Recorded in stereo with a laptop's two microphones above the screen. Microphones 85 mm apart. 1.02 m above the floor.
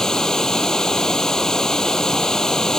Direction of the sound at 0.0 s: 5° left (ahead or behind).